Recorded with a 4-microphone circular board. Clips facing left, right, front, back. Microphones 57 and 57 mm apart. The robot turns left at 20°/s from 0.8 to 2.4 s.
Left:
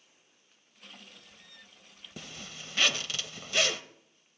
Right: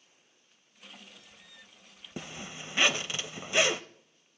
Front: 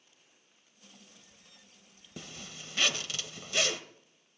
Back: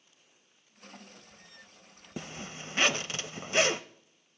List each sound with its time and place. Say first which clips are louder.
2.2 s a zipper: right 4 dB, back 6 dB; 140° right, 0.6 m; by 3.8 s 145° right, 0.6 m